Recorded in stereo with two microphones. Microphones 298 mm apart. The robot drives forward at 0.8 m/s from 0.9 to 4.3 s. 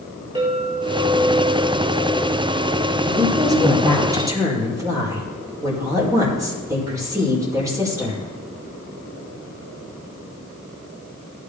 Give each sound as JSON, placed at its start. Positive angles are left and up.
{"t": 0.3, "sound": "a clink", "side_deg": -15, "distance_m": 4.5}
{"t": 3.0, "sound": "a woman speaking", "side_deg": -15, "distance_m": 4.0}